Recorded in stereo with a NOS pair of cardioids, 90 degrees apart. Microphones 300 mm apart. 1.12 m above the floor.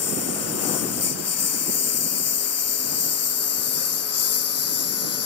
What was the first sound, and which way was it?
A lawn mower, 55° left.